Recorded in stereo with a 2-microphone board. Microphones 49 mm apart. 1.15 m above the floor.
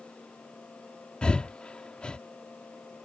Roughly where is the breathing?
Centre.